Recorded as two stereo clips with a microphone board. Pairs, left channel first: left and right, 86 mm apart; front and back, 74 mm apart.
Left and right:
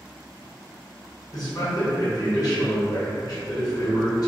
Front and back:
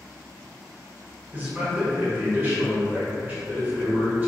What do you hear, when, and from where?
1.3 s a man speaking: 120° left, 1.0 m